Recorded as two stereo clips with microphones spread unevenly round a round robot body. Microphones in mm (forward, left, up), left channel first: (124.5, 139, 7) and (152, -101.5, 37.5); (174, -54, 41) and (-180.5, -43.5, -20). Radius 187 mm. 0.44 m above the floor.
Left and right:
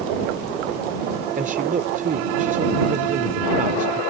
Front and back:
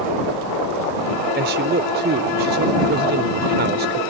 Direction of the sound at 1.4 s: 145° right.